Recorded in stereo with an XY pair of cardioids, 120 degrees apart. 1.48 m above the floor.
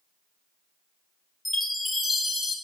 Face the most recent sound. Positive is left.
turn(degrees=25)